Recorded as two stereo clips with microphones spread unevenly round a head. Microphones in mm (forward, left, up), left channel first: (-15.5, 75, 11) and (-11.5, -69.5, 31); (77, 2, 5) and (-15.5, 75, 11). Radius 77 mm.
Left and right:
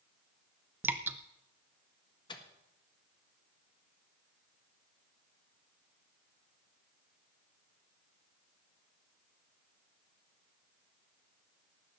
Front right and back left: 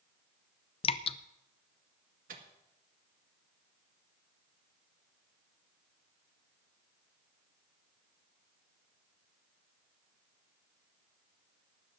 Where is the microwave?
155° left, 1.6 m.